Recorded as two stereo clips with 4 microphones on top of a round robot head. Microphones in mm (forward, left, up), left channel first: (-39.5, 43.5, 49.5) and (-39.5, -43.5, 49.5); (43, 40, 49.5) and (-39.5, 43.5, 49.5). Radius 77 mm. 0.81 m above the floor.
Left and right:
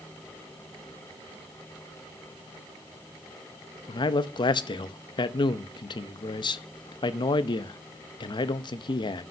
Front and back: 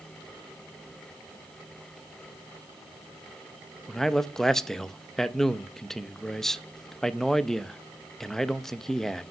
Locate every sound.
3.9 s a man speaking: 80° left, 0.7 m